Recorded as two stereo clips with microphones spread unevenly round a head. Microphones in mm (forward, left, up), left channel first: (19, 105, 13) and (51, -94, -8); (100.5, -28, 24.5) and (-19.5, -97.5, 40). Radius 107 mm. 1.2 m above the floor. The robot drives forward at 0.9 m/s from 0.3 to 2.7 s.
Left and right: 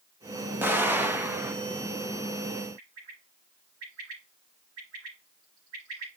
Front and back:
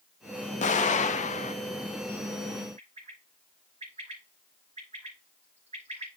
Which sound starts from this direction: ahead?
An explosion, at 0.6 s.